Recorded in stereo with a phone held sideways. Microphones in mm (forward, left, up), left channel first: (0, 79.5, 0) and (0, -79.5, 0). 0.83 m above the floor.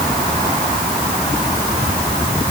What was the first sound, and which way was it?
Only background noise.